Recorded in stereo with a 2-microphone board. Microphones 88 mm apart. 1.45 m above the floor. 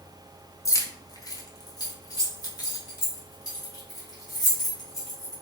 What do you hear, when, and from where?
0.7 s keys jangling: 35° left (ahead or behind), 0.6 m; by 5.3 s 40° left (ahead or behind), 3 m